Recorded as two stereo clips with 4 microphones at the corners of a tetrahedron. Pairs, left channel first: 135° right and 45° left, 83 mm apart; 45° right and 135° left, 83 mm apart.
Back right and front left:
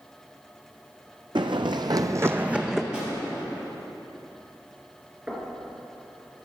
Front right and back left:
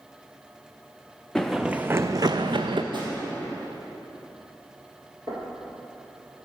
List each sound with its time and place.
1.4 s running footsteps: 40° left, 0.6 m; by 2.8 s 130° left, 0.7 m
2.9 s a drawer: 125° left, 2.5 m
5.3 s knocking: 115° left, 1.8 m